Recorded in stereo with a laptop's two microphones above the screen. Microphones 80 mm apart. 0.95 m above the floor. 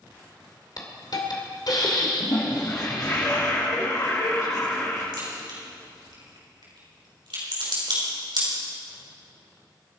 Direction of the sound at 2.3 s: 50° left (ahead or behind).